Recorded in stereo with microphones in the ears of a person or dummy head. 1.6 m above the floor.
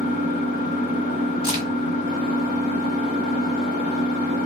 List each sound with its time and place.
0.0 s an engine running: 45° left (ahead or behind), 2 m
1.4 s a crack: 30° left (ahead or behind), 1.4 m